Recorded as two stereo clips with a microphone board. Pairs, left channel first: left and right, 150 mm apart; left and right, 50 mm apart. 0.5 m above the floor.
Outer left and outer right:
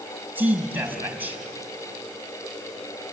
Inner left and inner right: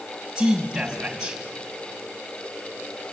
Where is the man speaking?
10° right (ahead or behind), 4.5 m.